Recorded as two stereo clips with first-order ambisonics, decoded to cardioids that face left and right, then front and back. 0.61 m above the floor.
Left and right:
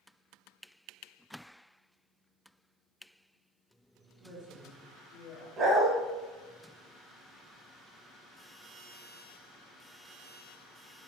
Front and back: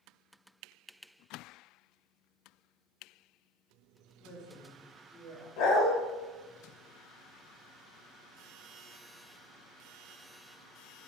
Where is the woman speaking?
5° left, 1.0 m; by 5.5 s 105° left, 1.4 m.